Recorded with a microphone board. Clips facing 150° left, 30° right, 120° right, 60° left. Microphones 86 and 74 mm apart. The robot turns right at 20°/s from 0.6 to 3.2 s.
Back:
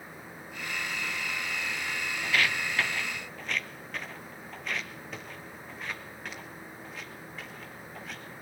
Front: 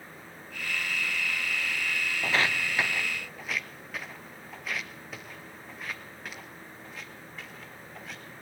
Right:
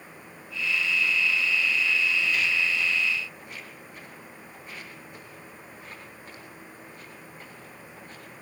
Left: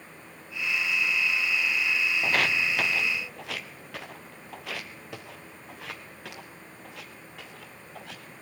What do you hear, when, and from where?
2.2 s footsteps: 25° left, 0.6 m; by 8.3 s 55° left, 7 m